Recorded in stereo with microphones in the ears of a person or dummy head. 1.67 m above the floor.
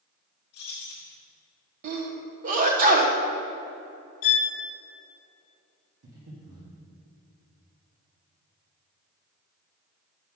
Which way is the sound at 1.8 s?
45° right (ahead or behind).